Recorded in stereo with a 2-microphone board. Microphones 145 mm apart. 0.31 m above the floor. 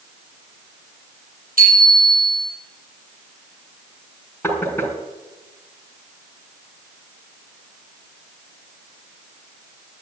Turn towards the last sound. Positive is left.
turn(degrees=15)  # may be behind; listen again after turning